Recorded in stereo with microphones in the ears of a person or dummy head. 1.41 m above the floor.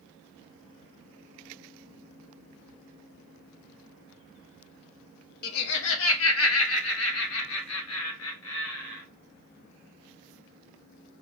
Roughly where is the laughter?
Left.